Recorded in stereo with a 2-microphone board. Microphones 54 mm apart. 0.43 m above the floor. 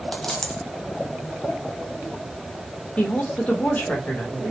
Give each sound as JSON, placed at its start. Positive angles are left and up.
{"t": 0.1, "sound": "a dropped coin", "side_deg": 10, "distance_m": 0.8}
{"t": 3.0, "sound": "a woman speaking", "side_deg": 30, "distance_m": 1.1}